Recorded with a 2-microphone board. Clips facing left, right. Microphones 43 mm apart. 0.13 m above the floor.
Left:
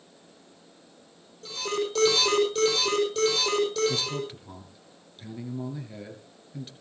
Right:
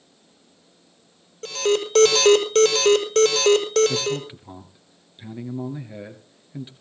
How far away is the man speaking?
About 2.5 m.